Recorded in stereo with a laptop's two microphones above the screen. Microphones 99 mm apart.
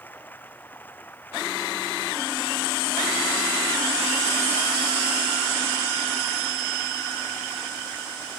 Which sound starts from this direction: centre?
Running water, at 0.0 s.